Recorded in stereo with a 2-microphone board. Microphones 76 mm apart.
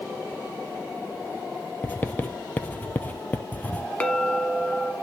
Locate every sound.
1.8 s writing: 25° left (ahead or behind), 0.8 m
4.0 s a clink: 20° left (ahead or behind), 1.2 m